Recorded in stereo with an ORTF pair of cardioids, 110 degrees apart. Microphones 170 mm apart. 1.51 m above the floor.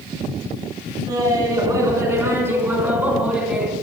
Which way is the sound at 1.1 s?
20° right.